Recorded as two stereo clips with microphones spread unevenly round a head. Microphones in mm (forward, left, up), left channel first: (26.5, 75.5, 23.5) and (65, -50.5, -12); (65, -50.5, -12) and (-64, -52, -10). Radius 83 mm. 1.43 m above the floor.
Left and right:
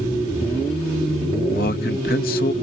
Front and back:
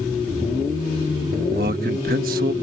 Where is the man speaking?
145° left.